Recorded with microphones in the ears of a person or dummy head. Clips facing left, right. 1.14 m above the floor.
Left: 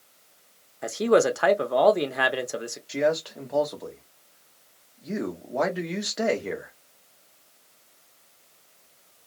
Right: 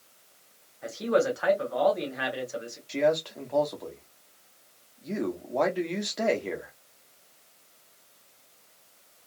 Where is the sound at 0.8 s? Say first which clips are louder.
Left 5 dB; 75° left (ahead or behind), 0.8 m.